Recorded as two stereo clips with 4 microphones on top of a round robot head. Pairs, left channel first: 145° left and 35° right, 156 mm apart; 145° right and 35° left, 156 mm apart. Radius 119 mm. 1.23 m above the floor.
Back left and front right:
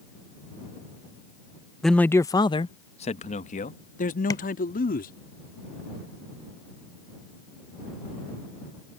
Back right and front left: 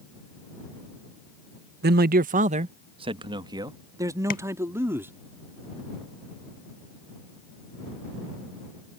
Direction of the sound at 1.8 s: 55° left.